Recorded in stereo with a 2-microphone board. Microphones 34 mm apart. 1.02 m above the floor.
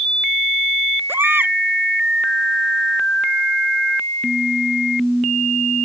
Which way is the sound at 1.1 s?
75° right (ahead or behind).